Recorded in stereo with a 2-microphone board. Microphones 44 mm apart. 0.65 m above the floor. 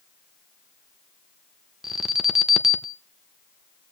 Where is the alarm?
10° right (ahead or behind), 0.8 m.